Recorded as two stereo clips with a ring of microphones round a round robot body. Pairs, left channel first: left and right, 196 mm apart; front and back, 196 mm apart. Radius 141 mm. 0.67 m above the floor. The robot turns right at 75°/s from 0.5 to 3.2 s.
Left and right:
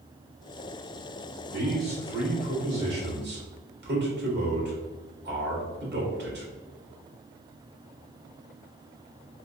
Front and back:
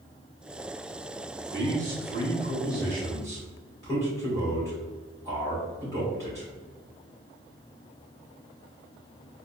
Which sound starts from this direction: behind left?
A man speaking, at 1.5 s.